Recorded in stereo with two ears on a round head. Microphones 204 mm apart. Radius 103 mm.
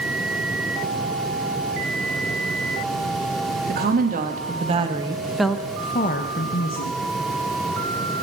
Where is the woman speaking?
45° right (ahead or behind), 2.5 m; by 7.0 s 65° left (ahead or behind), 1.6 m.